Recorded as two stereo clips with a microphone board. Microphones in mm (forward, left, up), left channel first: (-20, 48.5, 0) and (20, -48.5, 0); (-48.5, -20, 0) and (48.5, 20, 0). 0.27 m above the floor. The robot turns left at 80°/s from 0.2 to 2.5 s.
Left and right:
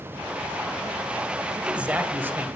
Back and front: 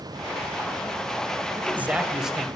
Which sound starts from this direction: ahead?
A man speaking, at 1.5 s.